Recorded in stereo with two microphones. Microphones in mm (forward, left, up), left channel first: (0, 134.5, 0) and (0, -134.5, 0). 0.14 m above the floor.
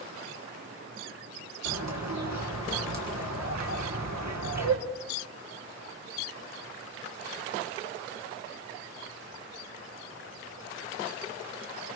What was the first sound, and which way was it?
A bird, 80° right.